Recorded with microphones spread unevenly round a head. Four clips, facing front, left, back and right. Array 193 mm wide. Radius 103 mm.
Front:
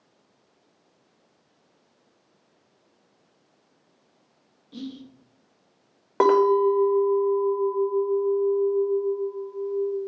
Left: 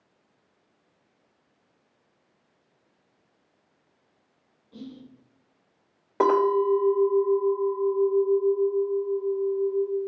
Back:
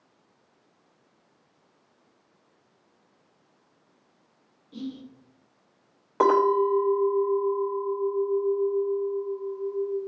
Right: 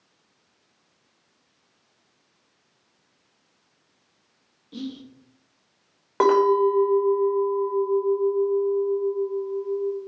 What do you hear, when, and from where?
4.7 s whispering: 55° right, 1.0 m
6.2 s a clink: 5° left, 1.0 m